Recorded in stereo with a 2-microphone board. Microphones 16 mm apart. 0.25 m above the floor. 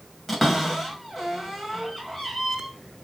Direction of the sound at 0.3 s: Centre (ahead or behind).